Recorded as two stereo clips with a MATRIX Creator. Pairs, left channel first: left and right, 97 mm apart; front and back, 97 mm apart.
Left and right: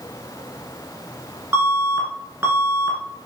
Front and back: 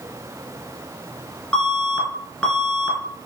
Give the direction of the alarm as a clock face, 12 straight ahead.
2 o'clock.